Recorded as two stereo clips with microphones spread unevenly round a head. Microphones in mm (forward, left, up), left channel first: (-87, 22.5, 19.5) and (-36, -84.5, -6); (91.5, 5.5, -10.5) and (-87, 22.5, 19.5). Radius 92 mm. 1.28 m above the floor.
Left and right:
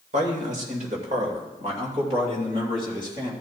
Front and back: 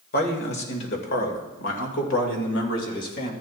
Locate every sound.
0.1 s a man speaking: 40° right, 2 m; by 3.3 s 5° left, 3 m